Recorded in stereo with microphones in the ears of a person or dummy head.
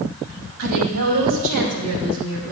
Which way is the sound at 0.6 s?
80° right.